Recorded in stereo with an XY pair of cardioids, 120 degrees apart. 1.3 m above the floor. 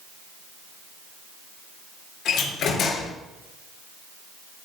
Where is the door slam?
60° left, 3.5 m.